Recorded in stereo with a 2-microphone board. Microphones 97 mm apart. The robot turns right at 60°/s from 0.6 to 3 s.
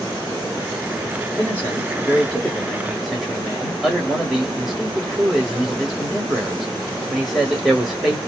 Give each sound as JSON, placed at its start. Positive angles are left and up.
{"t": 1.4, "sound": "a man speaking", "side_deg": 20, "distance_m": 1.3}